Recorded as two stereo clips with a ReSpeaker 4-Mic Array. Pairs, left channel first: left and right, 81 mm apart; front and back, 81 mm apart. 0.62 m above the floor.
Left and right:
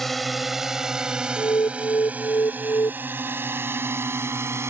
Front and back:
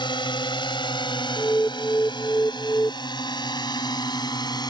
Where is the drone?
5° left; by 4.7 s 30° right.